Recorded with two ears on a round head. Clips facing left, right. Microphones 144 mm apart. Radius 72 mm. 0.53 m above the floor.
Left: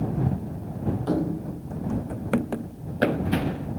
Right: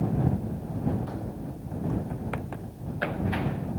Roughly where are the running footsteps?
Left.